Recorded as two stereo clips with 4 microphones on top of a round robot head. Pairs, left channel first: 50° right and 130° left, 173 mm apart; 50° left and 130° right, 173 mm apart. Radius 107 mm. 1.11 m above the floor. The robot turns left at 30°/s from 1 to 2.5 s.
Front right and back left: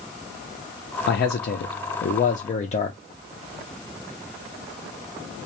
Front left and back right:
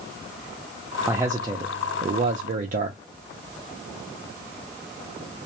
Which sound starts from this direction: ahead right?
A man speaking, at 1.1 s.